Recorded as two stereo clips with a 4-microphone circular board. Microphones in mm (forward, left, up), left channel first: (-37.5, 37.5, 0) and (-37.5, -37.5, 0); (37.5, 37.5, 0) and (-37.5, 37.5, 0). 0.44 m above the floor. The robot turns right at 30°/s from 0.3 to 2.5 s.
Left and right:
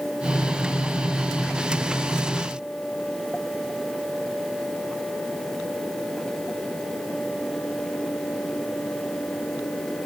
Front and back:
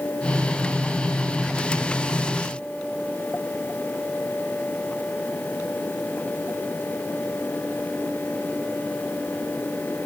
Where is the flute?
No flute in this recording.